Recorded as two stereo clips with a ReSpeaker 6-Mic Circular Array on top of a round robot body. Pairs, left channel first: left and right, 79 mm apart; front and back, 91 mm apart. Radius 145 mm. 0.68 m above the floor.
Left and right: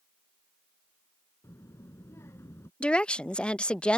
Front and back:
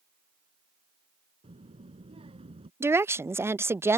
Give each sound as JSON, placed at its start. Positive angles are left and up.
{"t": 1.4, "sound": "a child speaking", "azimuth_deg": 150}
{"t": 2.8, "sound": "a woman speaking", "azimuth_deg": 155}